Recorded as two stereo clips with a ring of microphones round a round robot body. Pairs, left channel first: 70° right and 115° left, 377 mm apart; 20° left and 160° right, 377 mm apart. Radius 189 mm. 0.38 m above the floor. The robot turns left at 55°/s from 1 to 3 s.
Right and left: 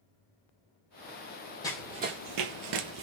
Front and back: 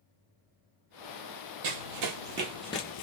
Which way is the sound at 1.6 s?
150° right.